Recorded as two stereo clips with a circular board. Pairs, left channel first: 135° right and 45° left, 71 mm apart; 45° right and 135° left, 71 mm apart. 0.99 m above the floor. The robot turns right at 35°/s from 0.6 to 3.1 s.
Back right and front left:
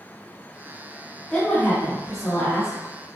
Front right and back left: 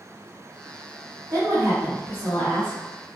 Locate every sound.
1.3 s a woman speaking: 150° left, 1.1 m; by 2.8 s 155° right, 1.1 m